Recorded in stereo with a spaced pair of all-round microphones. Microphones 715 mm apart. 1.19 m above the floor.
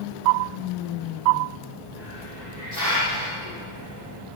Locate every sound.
1.9 s a hiss: 70° left (ahead or behind), 6 m